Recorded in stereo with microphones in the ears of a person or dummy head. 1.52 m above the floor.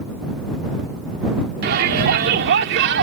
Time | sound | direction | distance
1.6 | a shout | 60° right (ahead or behind) | ?